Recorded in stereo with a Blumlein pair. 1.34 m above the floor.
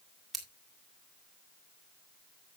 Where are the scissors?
5° right, 2 m.